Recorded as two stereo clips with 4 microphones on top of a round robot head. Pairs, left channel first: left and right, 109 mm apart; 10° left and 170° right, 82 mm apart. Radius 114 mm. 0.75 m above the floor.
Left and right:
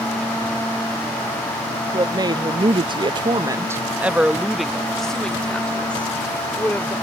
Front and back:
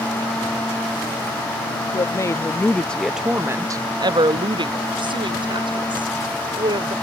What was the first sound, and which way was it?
A woman speaking, 40° right.